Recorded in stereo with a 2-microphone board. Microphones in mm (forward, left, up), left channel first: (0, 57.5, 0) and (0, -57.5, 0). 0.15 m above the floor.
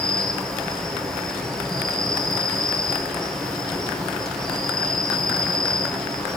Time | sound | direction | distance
0.0 | an insect | 5° left (ahead or behind) | 1.5 m